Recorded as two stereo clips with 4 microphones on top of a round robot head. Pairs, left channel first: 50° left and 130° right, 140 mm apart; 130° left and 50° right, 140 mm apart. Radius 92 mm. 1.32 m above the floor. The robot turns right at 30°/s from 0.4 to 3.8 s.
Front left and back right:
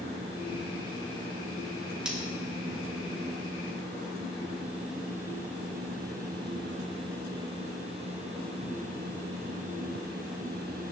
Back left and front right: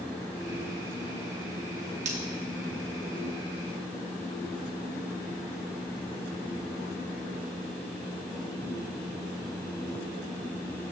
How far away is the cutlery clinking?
About 0.5 m.